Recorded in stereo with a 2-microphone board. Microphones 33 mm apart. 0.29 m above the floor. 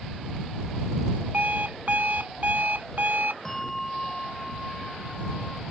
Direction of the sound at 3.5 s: 10° left (ahead or behind).